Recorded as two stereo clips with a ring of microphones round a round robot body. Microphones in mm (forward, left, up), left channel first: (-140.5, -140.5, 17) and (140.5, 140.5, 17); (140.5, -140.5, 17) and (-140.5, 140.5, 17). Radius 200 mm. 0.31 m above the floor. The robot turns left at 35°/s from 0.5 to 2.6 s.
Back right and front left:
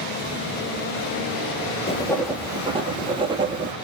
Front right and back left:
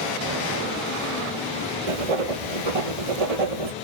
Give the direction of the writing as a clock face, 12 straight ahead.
7 o'clock.